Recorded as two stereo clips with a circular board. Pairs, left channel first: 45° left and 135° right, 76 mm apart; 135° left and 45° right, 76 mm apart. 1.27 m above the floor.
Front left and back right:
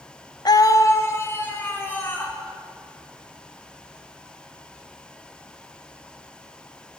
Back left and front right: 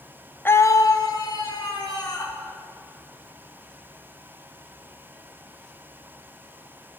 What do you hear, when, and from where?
0.5 s a scream: 70° left, 0.6 m; by 2.4 s 110° left, 3 m